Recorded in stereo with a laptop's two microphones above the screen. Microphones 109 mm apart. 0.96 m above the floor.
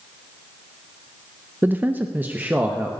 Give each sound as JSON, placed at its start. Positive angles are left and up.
{"t": 1.6, "sound": "a man speaking", "side_deg": -20, "distance_m": 0.5}